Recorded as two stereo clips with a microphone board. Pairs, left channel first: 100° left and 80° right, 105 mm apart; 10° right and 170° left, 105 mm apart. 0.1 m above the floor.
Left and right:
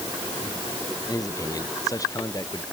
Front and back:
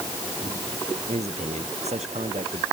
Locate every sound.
1.1 s a man speaking: 155° left